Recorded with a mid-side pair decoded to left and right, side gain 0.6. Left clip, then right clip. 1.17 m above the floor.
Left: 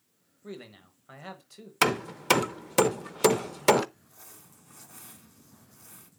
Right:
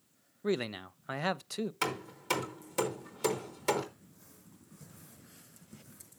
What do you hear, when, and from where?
0.4 s a man speaking: 55° right, 0.7 m
1.8 s hammering: 55° left, 0.8 m
4.0 s crumpling: 65° left, 2 m